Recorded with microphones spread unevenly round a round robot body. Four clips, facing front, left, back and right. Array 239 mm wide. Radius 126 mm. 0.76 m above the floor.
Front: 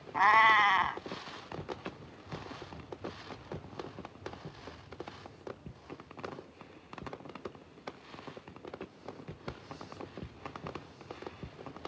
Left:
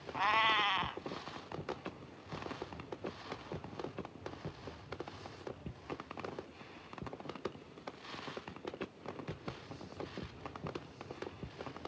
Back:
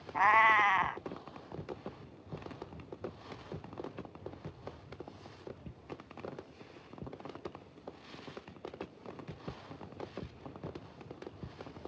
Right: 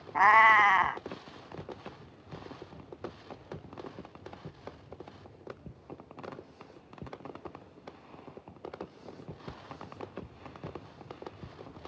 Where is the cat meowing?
80° right.